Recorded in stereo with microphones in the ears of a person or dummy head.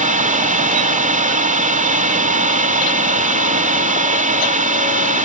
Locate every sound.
0.0 s a drone: 35° right (ahead or behind)